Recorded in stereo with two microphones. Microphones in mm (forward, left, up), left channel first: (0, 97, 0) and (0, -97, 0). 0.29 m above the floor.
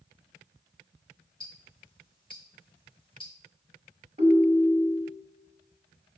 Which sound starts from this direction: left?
Ticking, at 1.4 s.